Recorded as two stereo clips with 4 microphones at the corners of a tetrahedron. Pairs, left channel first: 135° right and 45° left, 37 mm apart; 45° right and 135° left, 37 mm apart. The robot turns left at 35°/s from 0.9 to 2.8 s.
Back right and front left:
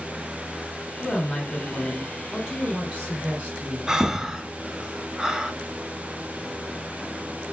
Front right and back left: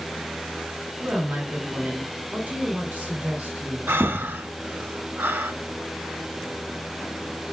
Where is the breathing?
120° left, 0.5 m.